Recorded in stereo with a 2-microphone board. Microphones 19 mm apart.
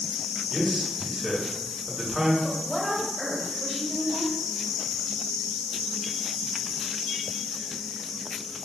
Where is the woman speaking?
30° left (ahead or behind), 1.6 m.